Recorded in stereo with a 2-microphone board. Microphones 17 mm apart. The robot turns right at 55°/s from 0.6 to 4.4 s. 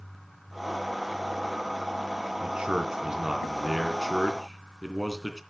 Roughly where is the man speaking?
Right.